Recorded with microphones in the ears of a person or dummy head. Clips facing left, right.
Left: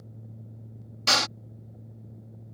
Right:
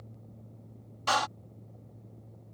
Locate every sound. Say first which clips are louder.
1.1 s a door slam: even; 40° left (ahead or behind)